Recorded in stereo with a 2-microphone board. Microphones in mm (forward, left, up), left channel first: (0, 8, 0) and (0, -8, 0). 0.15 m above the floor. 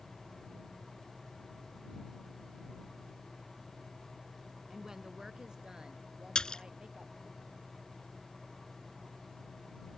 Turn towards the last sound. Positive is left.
turn(degrees=50)  # may be behind; listen again after turning